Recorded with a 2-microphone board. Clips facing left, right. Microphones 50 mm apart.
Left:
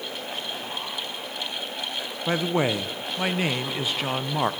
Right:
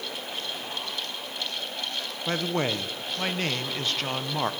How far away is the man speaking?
About 0.9 m.